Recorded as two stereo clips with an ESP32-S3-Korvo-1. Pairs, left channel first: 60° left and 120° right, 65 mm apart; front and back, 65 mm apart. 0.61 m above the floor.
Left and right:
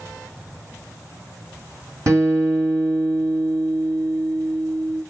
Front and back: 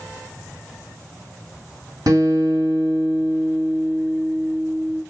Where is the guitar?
160° right, 2.5 m.